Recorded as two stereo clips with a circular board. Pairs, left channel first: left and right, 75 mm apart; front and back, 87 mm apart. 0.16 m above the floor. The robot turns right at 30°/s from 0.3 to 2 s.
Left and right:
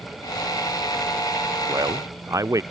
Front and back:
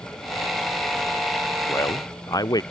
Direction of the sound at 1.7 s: 55° right.